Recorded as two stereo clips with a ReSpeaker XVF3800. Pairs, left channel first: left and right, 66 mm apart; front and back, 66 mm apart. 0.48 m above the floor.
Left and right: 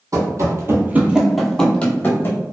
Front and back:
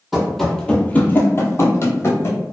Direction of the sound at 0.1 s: 90° right.